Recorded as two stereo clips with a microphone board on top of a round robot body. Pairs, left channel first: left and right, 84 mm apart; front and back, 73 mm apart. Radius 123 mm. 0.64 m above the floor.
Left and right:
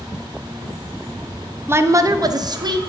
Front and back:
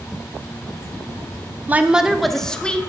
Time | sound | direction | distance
1.7 | a woman speaking | 130° right | 0.6 m